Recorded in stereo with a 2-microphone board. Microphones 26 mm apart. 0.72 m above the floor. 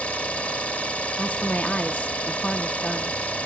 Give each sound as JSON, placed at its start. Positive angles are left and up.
{"t": 0.0, "sound": "an engine running", "side_deg": 60, "distance_m": 1.9}
{"t": 1.2, "sound": "a woman speaking", "side_deg": 60, "distance_m": 0.9}